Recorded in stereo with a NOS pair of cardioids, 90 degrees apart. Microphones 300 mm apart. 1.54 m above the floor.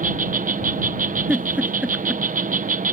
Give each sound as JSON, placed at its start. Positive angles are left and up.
{"t": 0.0, "sound": "an insect", "azimuth_deg": -25}
{"t": 1.3, "sound": "a giggle", "azimuth_deg": -5}